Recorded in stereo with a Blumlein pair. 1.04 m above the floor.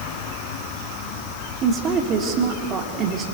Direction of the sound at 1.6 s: 30° right.